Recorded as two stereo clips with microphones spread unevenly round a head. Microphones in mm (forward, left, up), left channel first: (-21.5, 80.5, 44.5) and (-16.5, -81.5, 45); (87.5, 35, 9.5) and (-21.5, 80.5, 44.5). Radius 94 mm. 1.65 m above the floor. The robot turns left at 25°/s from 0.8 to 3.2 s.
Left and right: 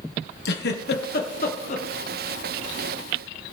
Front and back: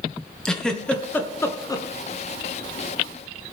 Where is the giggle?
60° left, 1.6 m; by 1.9 s 35° left, 1.6 m.